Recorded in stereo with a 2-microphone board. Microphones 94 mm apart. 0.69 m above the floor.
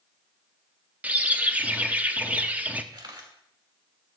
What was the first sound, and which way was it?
A bird, 15° right (ahead or behind).